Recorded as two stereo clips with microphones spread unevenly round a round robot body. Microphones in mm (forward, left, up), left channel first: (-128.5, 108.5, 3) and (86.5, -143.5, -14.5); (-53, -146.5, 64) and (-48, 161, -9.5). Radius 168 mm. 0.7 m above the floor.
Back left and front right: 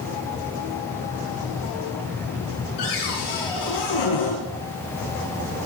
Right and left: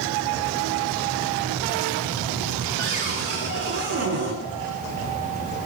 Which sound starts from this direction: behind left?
A cupboard door, at 2.8 s.